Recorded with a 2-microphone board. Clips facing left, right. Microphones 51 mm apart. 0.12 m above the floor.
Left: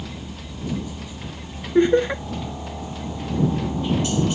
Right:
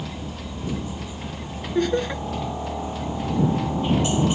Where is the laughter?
25° left (ahead or behind).